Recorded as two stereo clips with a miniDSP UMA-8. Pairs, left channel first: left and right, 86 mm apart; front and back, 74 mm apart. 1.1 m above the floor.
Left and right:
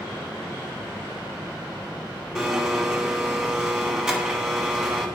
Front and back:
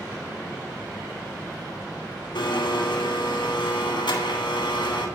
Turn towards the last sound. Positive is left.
turn(degrees=-10)